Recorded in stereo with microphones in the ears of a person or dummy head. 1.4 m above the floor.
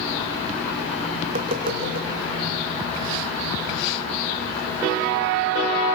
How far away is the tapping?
About 2.5 m.